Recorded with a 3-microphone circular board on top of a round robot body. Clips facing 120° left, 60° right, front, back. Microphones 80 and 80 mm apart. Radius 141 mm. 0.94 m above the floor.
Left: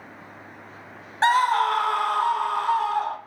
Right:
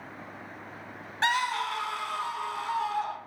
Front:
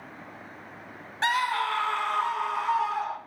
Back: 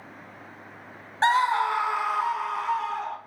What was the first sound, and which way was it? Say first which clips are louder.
A scream: left 9 dB, back 5 dB; 150° left.